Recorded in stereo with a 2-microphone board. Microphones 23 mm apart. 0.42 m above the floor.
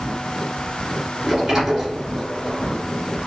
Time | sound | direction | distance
1.2 | a sliding door | 15° right (ahead or behind) | 2.0 m